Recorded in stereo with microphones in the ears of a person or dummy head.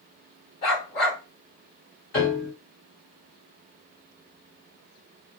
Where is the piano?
40° left (ahead or behind), 2.0 m.